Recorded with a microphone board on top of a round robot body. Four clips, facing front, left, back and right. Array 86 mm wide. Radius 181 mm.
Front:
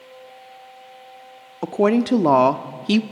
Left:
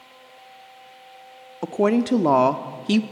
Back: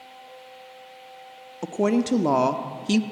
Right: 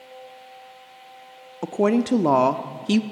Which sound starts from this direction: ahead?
A woman speaking, at 1.6 s.